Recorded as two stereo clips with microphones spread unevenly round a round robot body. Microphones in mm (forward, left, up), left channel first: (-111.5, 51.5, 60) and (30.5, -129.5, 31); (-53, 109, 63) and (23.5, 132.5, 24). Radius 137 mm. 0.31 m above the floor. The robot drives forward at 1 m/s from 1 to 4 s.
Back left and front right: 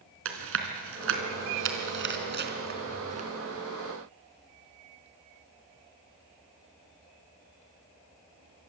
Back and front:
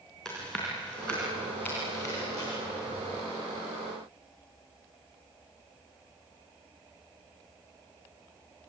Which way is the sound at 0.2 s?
70° right.